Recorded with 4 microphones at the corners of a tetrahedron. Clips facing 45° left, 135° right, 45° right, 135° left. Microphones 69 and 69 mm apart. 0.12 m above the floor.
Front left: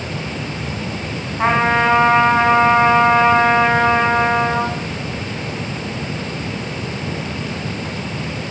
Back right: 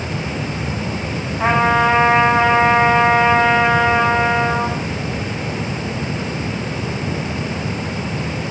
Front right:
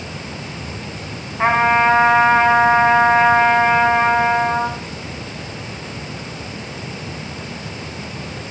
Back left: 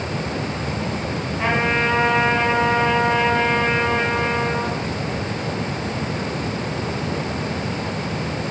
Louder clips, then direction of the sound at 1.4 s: Even, front right 7 dB; 10° left.